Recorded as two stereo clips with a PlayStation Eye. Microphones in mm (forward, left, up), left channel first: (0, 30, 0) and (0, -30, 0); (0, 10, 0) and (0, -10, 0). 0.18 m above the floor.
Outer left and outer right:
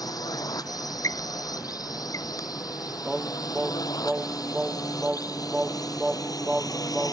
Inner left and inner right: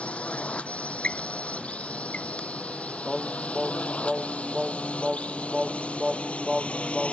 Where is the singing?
15° right (ahead or behind).